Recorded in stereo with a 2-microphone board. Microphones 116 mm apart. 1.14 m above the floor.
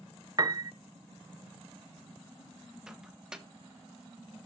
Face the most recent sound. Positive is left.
turn(degrees=-5)  # may be behind; listen again after turning